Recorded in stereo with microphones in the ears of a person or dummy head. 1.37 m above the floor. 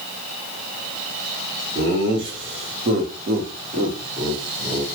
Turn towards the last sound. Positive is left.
turn(degrees=-10)  # may be behind; listen again after turning